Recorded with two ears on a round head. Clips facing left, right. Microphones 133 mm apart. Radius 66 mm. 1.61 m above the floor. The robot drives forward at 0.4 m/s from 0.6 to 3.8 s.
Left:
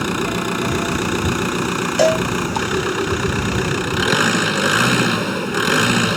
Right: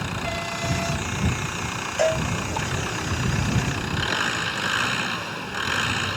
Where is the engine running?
70° left (ahead or behind); by 6.2 s 65° left (ahead or behind).